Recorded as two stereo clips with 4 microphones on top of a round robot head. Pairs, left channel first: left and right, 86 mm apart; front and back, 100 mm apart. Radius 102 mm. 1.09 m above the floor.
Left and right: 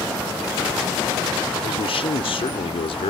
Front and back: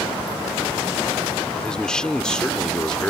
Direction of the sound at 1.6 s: 85° left.